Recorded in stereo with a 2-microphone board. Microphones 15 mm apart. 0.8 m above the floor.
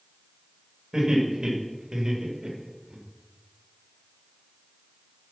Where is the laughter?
50° right (ahead or behind), 3.5 m; by 3.0 s 60° right (ahead or behind), 3 m.